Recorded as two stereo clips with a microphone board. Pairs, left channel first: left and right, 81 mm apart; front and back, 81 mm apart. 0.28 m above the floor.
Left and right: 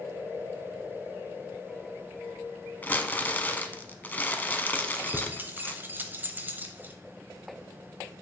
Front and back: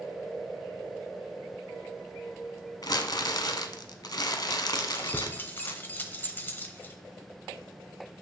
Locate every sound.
2.8 s crumpling: 25° left, 0.6 m
4.8 s keys jangling: 45° right, 0.8 m